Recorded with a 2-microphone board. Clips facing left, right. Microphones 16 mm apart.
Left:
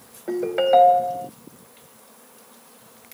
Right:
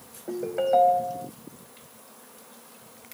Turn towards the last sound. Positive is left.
turn(degrees=55)  # may be behind; listen again after turning